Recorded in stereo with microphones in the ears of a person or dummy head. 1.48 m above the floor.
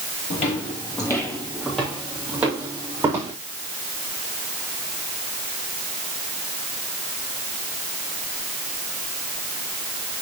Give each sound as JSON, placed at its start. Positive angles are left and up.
{"t": 0.3, "sound": "footsteps", "side_deg": 30, "distance_m": 2.5}